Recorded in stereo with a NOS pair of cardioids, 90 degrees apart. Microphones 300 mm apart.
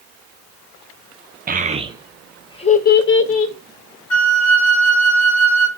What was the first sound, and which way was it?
A child speaking, 30° right.